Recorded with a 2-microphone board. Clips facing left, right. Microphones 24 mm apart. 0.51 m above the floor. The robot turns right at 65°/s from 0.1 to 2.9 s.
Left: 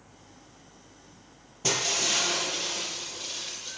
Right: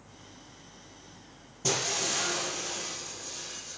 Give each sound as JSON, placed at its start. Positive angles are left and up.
{"t": 1.6, "sound": "breaking glass", "azimuth_deg": 25, "distance_m": 6.0}